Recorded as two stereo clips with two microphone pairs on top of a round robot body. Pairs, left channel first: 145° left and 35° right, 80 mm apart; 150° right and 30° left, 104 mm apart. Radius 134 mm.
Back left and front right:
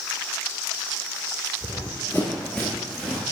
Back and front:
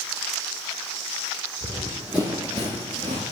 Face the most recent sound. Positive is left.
turn(degrees=50)